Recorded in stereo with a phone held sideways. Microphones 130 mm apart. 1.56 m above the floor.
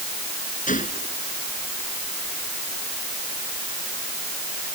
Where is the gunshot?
80° left.